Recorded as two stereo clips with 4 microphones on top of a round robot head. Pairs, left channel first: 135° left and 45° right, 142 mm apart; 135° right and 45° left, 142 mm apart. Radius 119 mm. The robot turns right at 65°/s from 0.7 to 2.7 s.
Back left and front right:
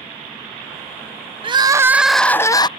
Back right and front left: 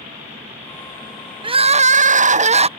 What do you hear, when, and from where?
1.4 s crying: straight ahead; by 2.7 s 80° left